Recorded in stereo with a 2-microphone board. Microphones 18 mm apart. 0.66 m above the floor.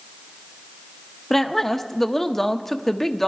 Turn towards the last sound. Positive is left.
turn(degrees=15)  # may be behind; listen again after turning